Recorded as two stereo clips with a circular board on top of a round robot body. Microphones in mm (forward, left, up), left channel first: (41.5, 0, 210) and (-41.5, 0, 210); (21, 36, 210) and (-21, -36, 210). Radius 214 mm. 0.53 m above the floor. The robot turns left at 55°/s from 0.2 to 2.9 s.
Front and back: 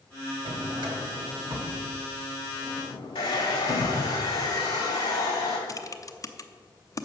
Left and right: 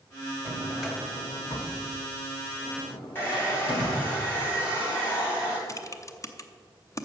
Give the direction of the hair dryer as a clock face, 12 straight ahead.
12 o'clock.